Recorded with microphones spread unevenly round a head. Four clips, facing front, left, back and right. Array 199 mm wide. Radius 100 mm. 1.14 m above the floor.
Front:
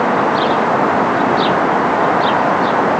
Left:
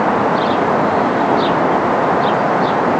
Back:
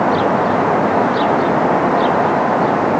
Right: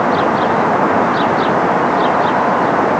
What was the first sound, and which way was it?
Only background noise.